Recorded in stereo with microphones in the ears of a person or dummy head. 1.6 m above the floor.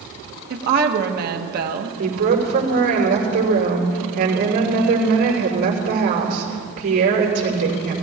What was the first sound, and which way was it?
A woman speaking, 55° right (ahead or behind).